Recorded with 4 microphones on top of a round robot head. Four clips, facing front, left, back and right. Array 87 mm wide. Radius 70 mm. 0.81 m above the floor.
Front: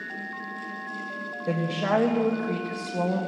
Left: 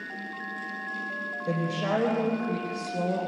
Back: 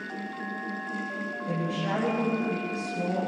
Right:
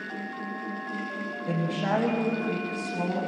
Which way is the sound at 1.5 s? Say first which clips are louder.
Even, front 5 dB; 20° left.